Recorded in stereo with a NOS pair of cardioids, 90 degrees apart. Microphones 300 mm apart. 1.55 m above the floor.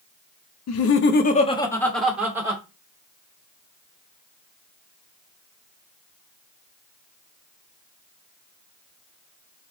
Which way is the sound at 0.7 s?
60° left.